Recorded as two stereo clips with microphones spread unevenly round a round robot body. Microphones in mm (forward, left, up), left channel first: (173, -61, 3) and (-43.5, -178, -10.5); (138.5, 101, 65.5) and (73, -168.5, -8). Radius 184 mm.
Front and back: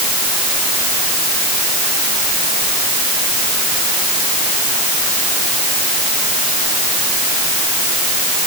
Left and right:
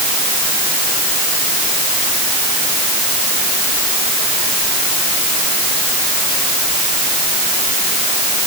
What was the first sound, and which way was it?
Only background noise.